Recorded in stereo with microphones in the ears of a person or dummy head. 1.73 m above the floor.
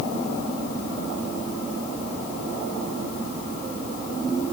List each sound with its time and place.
Only background noise.